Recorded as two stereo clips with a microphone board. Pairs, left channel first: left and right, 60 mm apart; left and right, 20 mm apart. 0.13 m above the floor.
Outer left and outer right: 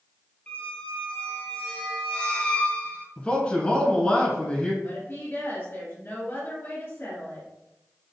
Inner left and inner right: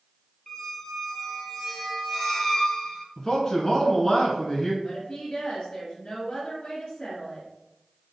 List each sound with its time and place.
0.5 s a squeak: 20° left (ahead or behind), 0.8 m
3.2 s a man speaking: 20° left (ahead or behind), 1.4 m
4.8 s a woman speaking: 45° left (ahead or behind), 2.0 m